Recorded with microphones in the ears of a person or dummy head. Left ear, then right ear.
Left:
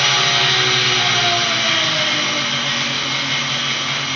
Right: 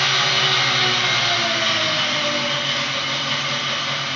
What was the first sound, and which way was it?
An engine running, 50° right (ahead or behind).